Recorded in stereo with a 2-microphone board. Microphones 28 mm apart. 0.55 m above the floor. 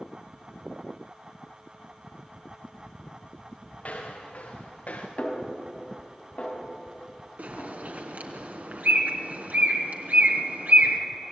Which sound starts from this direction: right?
A bird, at 7.4 s.